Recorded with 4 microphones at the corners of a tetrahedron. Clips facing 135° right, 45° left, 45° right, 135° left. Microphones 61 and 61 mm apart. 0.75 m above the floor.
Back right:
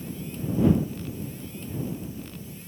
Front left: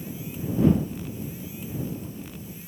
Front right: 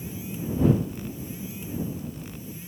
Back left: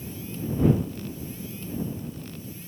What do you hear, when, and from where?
Only background noise.